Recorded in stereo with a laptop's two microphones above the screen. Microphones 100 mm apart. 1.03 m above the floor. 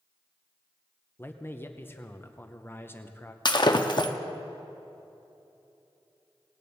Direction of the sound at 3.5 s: 45° left (ahead or behind).